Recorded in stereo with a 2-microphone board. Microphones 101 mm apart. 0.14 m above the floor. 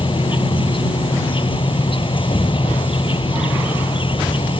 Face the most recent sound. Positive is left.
turn(degrees=60)  # may be behind; listen again after turning